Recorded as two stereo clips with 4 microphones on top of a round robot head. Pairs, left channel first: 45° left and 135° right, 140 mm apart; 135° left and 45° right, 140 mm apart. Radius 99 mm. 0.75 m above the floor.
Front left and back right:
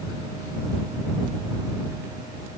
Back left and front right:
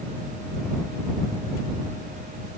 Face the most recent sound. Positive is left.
No sound to turn to.